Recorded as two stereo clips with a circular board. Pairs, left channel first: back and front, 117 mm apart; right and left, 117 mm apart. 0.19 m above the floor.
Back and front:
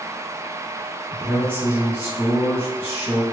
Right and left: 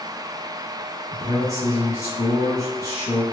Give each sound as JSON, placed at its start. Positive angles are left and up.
{"t": 1.1, "sound": "a man speaking", "azimuth_deg": -55, "distance_m": 1.5}